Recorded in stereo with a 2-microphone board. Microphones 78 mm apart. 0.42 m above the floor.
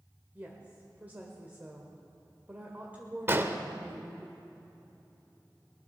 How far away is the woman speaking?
About 1.5 m.